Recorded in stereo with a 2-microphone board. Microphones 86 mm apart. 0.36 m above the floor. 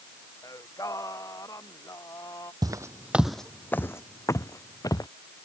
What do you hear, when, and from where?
0.4 s singing: 40° left (ahead or behind)
2.6 s footsteps: 50° right (ahead or behind); by 5.1 s 45° left (ahead or behind)